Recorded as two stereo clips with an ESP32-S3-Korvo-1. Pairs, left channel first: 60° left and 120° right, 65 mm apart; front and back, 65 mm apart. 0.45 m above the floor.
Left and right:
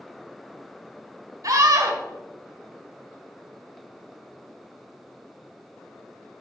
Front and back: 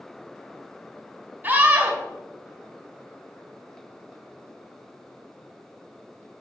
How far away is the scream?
About 1.6 m.